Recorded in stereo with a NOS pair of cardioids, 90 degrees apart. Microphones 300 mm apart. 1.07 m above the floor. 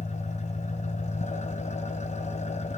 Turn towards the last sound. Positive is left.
turn(degrees=25)